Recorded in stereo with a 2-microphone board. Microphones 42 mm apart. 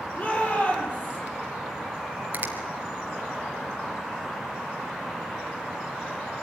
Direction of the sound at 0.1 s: 35° left (ahead or behind).